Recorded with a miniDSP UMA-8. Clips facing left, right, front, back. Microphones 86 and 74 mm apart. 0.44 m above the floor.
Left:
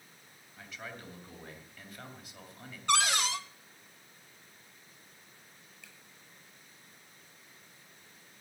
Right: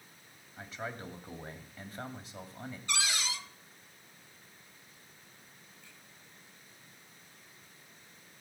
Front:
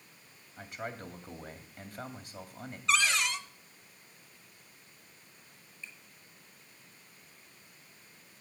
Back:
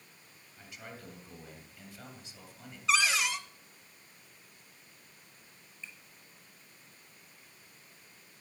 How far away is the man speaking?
About 2 m.